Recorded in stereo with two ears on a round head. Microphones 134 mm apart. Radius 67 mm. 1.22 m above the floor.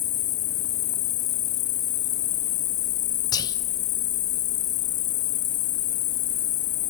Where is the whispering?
25° left (ahead or behind), 1.0 m.